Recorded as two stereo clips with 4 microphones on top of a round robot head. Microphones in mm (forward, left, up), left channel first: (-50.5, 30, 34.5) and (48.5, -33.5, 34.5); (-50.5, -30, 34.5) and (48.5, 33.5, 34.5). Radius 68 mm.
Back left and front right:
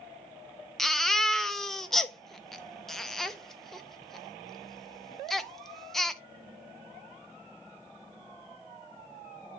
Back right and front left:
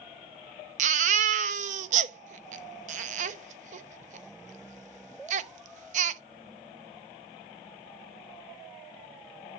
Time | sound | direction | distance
0.8 | a baby crying | 60° left | 0.7 m